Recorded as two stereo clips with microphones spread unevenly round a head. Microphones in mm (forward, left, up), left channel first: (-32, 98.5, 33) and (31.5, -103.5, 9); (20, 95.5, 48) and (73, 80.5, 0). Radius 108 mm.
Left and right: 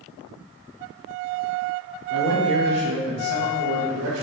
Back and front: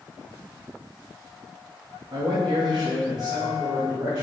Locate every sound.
2.1 s a man speaking: 45° right, 0.7 m; by 4.2 s 110° right, 1.3 m